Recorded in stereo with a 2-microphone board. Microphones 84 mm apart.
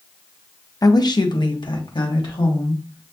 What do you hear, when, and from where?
0.8 s a woman speaking: 45° left (ahead or behind), 0.6 m; by 3.1 s 75° left (ahead or behind), 2 m